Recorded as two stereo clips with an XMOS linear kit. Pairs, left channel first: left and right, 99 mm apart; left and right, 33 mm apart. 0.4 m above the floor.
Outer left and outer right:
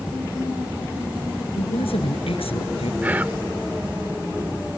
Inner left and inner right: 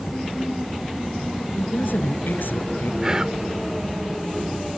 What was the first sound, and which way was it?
A woman speaking, 75° left (ahead or behind).